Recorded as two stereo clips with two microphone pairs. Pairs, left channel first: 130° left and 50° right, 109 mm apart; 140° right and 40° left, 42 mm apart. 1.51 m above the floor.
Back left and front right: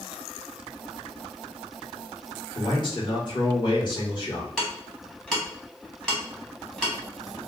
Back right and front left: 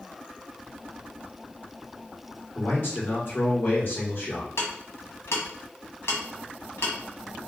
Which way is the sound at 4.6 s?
150° right.